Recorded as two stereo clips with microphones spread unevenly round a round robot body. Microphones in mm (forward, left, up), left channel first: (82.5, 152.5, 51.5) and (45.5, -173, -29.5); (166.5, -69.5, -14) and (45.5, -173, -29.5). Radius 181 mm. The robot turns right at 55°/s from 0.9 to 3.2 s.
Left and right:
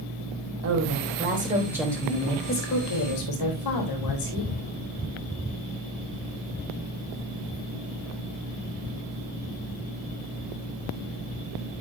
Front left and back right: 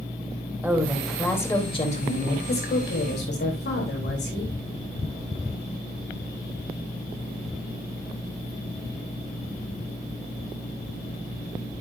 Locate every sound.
0.6 s a woman speaking: 65° right, 3.5 m; by 4.5 s 65° left, 3.5 m